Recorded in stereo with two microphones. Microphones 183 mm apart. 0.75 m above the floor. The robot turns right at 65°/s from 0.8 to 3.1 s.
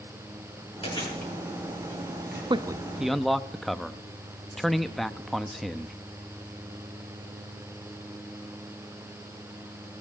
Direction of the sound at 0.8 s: 30° left (ahead or behind).